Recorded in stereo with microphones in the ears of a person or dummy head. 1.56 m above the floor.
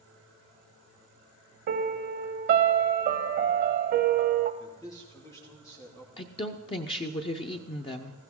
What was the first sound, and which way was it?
A piano, 55° right (ahead or behind).